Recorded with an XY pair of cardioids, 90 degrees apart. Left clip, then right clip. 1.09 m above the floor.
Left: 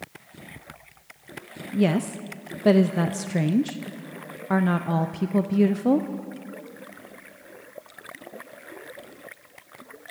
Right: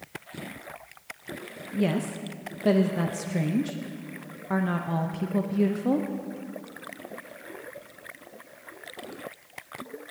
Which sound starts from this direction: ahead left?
A woman speaking, at 1.7 s.